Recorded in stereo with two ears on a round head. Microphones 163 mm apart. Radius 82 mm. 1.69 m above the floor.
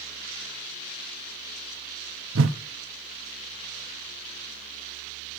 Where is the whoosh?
80° right, 0.9 m.